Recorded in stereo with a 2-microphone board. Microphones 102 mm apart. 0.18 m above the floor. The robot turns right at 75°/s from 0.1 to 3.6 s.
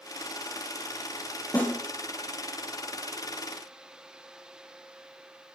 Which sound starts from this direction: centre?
A snare drum, at 1.5 s.